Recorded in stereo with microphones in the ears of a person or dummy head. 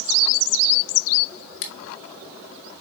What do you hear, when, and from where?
1.6 s scissors: 70° left (ahead or behind), 1.5 m